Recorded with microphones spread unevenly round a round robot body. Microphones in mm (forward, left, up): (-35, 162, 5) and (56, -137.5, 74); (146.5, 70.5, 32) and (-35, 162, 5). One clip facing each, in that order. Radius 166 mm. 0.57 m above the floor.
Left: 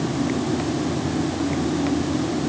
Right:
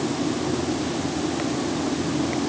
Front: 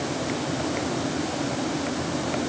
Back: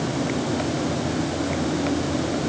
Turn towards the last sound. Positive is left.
No sound to turn to.